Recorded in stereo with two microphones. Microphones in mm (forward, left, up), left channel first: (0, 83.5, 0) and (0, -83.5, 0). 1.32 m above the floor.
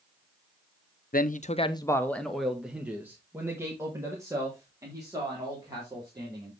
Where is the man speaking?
60° left (ahead or behind), 0.7 m; by 6.5 s 25° right (ahead or behind), 4.5 m.